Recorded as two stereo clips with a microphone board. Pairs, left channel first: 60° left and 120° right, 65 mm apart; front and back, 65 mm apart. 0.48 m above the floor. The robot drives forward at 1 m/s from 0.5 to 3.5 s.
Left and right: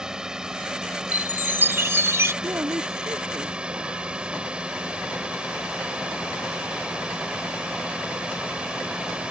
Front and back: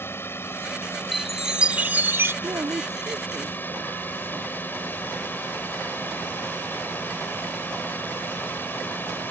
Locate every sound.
0.0 s a drone: 45° right; by 9.3 s 50° right
1.1 s a chime: 85° right; by 2.3 s 145° right
2.4 s a woman speaking: 155° right